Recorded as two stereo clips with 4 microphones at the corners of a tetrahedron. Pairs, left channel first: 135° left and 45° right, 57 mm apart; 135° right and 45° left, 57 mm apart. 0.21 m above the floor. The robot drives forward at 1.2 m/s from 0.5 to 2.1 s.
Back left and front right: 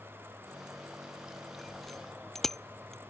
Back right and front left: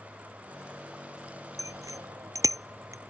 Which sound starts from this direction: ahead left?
A bicycle bell, at 1.6 s.